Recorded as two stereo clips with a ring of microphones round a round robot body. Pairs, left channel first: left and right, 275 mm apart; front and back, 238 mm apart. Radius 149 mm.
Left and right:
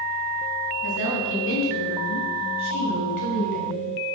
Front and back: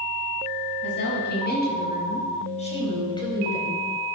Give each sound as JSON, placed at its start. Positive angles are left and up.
{"t": 0.8, "sound": "a woman speaking", "azimuth_deg": 40, "distance_m": 7.0}